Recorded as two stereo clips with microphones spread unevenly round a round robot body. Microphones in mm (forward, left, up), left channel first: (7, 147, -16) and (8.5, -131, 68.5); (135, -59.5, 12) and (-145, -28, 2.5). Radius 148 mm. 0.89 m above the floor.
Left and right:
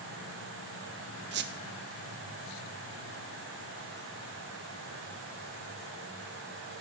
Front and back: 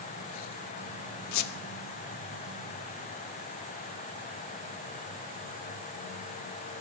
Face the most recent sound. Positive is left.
turn(degrees=-35)